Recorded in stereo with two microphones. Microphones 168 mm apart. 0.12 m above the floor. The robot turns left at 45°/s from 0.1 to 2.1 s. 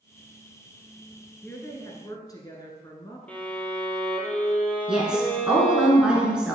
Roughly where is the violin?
Centre.